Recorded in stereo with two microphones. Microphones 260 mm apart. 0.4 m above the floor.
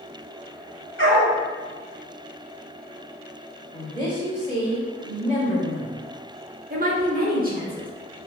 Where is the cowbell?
No cowbell in this recording.